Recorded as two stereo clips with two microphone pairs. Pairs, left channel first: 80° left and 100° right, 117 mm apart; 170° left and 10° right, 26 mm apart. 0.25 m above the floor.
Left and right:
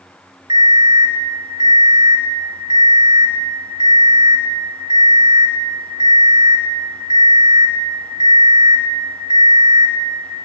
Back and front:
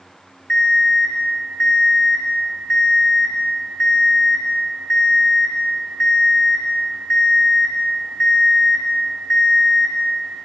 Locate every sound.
0.5 s an alarm clock: 150° right, 1.3 m